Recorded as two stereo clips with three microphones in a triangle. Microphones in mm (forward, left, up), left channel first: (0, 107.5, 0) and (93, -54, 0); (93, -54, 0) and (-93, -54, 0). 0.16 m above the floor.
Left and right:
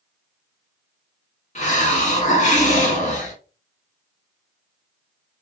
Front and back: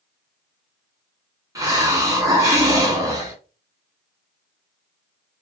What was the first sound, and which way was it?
A hiss, 120° left.